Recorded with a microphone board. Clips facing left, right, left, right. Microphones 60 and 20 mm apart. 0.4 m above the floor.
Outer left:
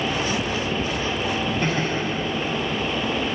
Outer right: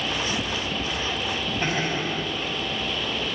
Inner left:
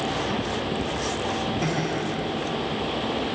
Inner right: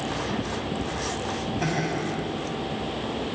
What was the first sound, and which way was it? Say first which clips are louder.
Laughter: outer left 2 dB, inner left 1 dB; 25° right (ahead or behind).